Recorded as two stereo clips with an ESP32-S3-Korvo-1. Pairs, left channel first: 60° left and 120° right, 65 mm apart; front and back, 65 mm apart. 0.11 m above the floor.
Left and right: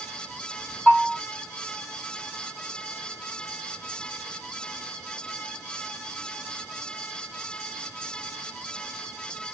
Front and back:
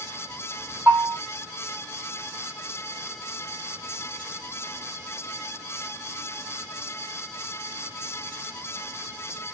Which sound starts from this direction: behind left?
A bell, at 0.9 s.